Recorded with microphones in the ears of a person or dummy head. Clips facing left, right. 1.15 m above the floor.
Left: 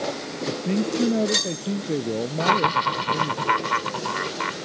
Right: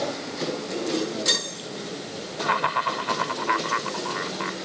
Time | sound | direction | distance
0.5 | a man speaking | 70° left (ahead or behind) | ?
2.4 | laughter | 55° left (ahead or behind) | ?